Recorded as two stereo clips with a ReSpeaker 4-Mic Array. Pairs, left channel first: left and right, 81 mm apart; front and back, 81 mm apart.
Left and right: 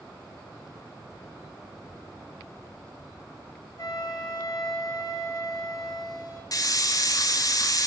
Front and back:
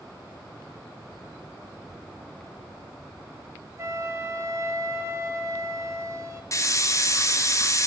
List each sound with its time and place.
3.8 s a flute: 125° left, 0.8 m
6.5 s a hiss: 50° left, 0.5 m